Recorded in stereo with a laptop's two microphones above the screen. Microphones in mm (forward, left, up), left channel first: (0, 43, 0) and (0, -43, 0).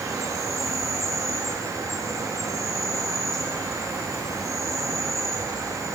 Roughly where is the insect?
Right.